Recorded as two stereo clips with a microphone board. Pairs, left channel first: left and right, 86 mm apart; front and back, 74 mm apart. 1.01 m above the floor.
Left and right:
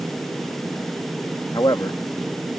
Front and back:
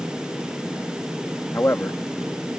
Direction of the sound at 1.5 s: 55° left.